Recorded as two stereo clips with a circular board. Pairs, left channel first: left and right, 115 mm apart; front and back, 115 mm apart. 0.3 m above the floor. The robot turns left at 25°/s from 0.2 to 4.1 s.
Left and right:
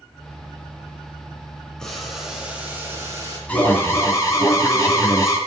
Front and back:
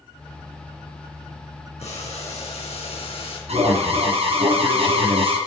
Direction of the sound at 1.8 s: 5° left.